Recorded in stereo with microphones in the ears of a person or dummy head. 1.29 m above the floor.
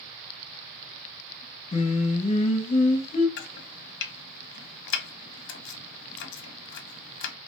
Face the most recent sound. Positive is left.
turn(degrees=75)  # may be behind; listen again after turning